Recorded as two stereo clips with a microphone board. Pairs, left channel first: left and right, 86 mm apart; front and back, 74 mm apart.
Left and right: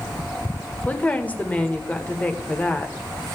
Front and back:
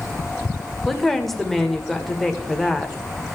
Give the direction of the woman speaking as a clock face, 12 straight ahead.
9 o'clock.